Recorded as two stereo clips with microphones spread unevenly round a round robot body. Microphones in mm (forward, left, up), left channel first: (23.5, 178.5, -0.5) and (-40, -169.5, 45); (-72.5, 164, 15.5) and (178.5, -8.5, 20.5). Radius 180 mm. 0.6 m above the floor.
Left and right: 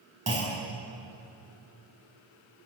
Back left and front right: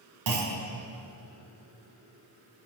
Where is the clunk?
25° right, 4.5 m.